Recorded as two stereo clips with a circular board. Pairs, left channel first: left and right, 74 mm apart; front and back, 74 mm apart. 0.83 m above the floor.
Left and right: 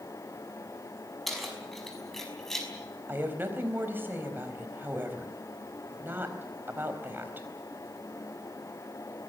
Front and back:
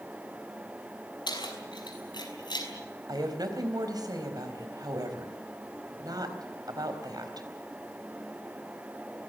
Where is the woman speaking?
150° right, 4 m.